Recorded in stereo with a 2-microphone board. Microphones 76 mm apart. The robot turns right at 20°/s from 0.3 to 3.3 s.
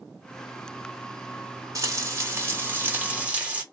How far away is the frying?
About 1.0 m.